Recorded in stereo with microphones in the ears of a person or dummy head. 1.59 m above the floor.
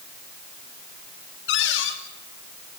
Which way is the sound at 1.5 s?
75° left (ahead or behind).